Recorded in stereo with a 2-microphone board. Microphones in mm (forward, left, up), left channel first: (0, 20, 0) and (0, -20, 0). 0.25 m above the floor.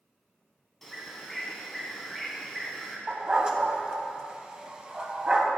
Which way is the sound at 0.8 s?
5° left (ahead or behind).